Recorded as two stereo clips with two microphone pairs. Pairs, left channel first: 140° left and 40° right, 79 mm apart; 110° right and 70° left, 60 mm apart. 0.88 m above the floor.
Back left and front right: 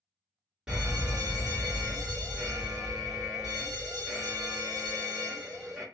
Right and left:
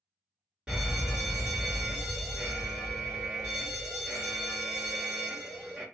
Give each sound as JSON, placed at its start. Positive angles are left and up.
{"t": 0.7, "sound": "a fire alarm", "azimuth_deg": 15, "distance_m": 1.5}